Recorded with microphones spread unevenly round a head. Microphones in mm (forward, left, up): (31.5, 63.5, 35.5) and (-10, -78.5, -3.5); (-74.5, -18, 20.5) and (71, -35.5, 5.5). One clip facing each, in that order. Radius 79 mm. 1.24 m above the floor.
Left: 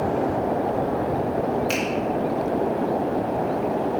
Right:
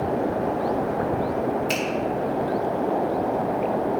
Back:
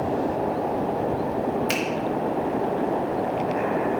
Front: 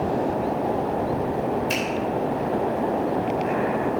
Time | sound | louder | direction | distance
1.7 | a finger snap | left 1 dB, even | 165° left | 2.5 m